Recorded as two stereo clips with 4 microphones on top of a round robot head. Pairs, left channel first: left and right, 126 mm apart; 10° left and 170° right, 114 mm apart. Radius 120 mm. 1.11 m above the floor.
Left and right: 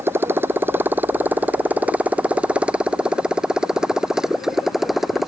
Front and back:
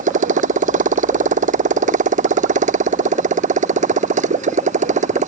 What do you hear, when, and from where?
0.0 s a motorcycle: 165° right; by 5.3 s straight behind